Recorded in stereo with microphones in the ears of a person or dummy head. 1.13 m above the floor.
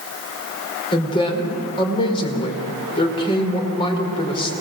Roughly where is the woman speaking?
Left.